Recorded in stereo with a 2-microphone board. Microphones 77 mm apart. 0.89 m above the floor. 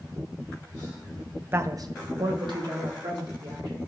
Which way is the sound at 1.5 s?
30° right (ahead or behind).